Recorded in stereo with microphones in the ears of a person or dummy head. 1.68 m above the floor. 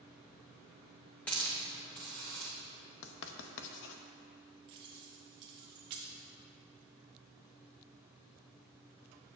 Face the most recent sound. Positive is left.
turn(degrees=-25)  # may be behind; listen again after turning